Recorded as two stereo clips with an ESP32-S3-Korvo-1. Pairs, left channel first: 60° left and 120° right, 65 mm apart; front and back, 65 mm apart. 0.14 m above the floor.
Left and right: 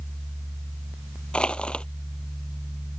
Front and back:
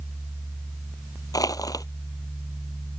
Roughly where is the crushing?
Ahead.